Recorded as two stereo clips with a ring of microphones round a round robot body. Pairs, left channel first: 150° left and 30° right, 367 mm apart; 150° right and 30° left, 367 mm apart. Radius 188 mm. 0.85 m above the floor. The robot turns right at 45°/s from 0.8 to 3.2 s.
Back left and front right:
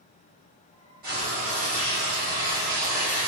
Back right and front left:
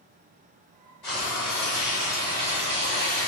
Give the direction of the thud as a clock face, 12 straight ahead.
I don't hear a thud.